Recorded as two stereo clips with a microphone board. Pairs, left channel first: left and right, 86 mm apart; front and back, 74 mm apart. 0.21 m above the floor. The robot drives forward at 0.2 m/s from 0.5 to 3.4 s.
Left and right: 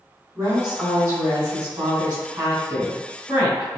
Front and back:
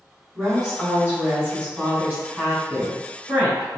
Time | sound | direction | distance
0.3 | a woman speaking | 125° right | 1.6 m